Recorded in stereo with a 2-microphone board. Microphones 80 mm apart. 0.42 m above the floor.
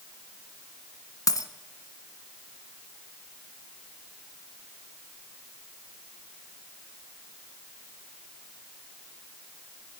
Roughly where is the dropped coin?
Left.